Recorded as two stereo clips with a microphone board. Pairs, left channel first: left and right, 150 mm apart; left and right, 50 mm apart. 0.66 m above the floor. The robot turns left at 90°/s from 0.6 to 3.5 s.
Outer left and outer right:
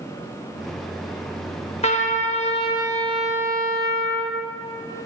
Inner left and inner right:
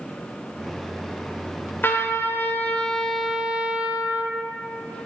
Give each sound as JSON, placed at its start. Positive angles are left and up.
{"t": 1.8, "sound": "a trumpet", "azimuth_deg": 125, "distance_m": 0.7}